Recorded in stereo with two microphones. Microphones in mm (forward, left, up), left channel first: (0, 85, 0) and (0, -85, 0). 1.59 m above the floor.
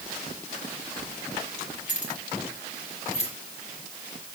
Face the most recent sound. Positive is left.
turn(degrees=40)  # may be behind; listen again after turning